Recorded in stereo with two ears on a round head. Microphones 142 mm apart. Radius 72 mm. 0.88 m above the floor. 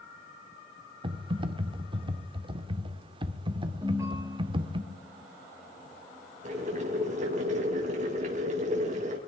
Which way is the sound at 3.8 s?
20° right (ahead or behind).